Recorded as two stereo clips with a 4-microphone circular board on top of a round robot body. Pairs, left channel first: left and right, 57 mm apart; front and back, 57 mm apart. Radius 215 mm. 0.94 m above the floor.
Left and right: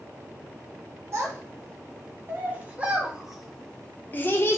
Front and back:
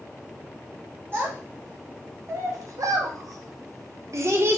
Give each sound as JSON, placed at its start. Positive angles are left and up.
{"t": 1.1, "sound": "a child speaking", "azimuth_deg": -130, "distance_m": 1.8}